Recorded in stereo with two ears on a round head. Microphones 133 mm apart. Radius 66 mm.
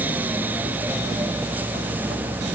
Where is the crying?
No crying in this recording.